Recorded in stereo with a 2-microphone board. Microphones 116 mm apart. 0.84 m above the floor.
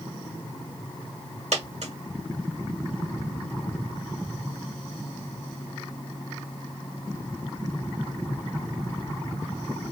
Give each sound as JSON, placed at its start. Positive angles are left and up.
{"t": 1.5, "sound": "a dropped coin", "side_deg": -70, "distance_m": 1.3}